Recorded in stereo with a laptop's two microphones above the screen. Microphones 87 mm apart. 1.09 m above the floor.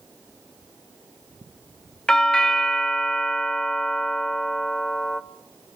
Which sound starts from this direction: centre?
A doorbell, at 2.1 s.